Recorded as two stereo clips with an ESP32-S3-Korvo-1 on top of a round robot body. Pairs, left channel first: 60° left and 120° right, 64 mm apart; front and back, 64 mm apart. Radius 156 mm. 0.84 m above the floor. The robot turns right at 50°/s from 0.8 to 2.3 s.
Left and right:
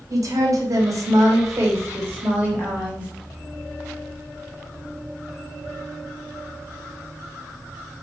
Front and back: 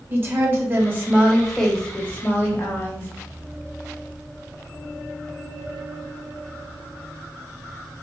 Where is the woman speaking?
130° right, 1.6 m; by 3.1 s 55° right, 1.6 m.